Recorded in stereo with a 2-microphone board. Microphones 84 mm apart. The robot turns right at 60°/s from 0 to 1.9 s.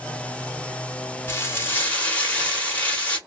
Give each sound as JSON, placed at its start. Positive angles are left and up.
{"t": 1.3, "sound": "frying", "side_deg": 30, "distance_m": 1.1}